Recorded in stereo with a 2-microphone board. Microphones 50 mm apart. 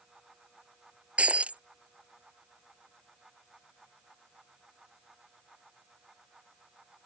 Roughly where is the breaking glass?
Right.